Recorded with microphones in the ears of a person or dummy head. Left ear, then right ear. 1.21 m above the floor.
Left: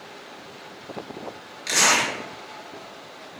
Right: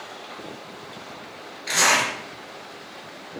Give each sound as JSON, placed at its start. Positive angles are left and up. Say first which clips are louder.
{"t": 1.7, "sound": "a zipper", "louder": "even", "side_deg": 80, "distance_m": 1.2}